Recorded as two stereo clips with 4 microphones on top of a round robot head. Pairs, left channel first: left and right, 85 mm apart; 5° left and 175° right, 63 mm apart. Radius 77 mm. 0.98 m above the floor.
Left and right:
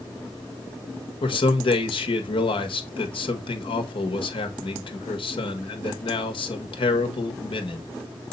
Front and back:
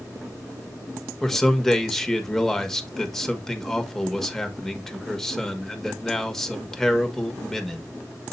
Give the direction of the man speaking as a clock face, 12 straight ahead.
9 o'clock.